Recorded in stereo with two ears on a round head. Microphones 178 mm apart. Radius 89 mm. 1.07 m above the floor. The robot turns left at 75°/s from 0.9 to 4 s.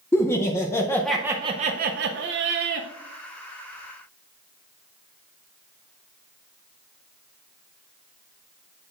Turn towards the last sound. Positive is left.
turn(degrees=140)